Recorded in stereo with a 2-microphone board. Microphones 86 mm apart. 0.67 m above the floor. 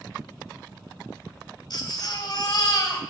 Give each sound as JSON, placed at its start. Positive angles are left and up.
{"t": 1.7, "sound": "a baby crying", "side_deg": 55, "distance_m": 2.5}